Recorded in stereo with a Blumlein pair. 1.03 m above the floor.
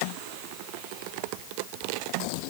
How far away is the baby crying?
No baby crying in this recording.